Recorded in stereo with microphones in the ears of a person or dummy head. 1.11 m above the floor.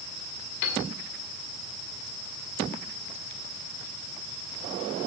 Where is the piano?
75° left (ahead or behind), 3 m.